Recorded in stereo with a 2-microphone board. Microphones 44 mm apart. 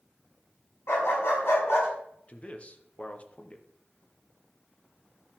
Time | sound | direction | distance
0.9 | a dog barking | 70° left (ahead or behind) | 5 m
2.3 | a man speaking | 30° left (ahead or behind) | 1.1 m